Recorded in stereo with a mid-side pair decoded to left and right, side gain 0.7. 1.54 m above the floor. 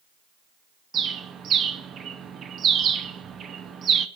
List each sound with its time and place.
0.9 s a bird: 40° right, 0.9 m